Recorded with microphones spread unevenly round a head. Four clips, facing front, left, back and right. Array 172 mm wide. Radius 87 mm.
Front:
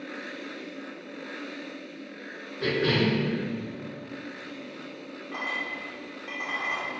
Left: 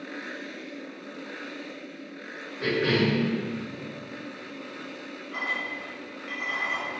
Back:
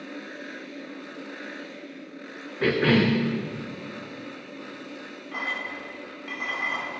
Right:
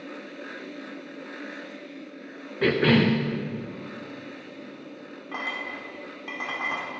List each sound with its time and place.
2.6 s a cough: 130° right, 0.7 m
5.3 s a clink: 90° right, 2 m